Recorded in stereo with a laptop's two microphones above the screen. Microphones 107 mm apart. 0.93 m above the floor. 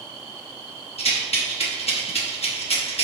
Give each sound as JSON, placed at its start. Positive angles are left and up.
{"t": 1.0, "sound": "a rattle", "side_deg": 75, "distance_m": 0.8}